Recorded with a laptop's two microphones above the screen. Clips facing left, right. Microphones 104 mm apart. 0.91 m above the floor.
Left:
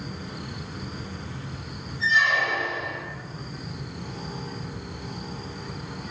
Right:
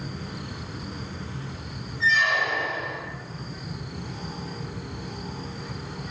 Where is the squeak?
50° right (ahead or behind), 1.1 m.